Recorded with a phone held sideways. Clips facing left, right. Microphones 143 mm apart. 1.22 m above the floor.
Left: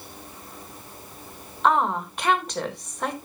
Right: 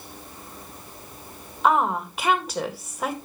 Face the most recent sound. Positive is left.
turn(degrees=-5)  # may be behind; listen again after turning